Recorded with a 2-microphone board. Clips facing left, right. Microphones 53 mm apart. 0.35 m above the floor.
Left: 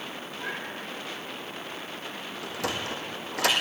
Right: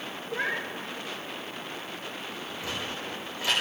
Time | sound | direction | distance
0.3 | a cat meowing | 80° right | 4 m
2.4 | a sliding door | 80° left | 4 m